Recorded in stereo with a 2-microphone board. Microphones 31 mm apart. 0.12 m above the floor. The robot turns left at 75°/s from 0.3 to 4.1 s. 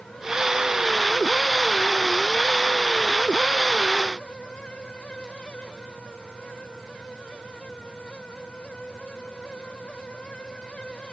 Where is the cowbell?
I don't hear a cowbell.